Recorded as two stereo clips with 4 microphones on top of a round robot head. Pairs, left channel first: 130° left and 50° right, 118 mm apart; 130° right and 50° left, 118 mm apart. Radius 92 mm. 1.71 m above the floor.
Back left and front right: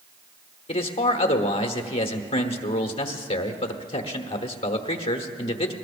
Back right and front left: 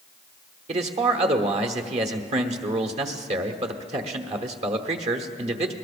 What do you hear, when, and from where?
0.7 s a man speaking: 85° left, 1.1 m